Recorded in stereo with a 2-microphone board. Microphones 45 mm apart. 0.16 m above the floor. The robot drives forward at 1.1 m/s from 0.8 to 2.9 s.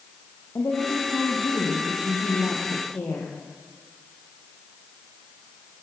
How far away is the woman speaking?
About 7 m.